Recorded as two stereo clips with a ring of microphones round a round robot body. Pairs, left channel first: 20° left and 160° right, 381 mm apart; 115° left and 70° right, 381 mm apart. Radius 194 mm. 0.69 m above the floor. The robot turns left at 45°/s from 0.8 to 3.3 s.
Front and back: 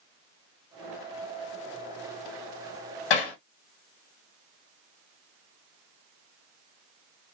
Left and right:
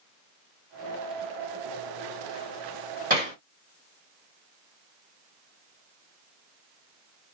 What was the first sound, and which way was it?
Hammering, straight ahead.